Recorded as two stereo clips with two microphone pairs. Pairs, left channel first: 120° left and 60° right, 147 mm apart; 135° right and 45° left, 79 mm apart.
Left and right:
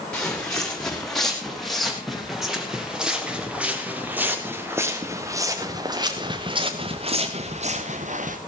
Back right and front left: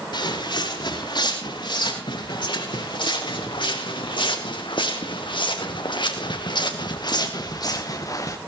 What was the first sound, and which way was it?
Footsteps, 155° right.